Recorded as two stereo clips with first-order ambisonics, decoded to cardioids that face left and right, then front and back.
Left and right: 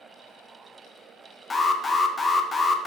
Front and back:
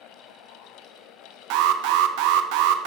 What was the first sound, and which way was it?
An alarm, 165° left.